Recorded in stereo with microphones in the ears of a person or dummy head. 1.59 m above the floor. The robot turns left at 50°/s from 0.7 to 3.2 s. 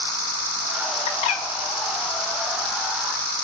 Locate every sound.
1.1 s a bird: 25° left (ahead or behind), 2 m; by 1.4 s 45° left (ahead or behind), 2 m